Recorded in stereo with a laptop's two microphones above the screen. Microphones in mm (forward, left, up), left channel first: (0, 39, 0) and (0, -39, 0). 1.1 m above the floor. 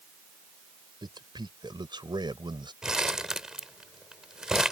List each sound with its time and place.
1.0 s a man speaking: 75° right (ahead or behind); by 2.7 s 80° right
2.8 s crumpling: 10° right (ahead or behind)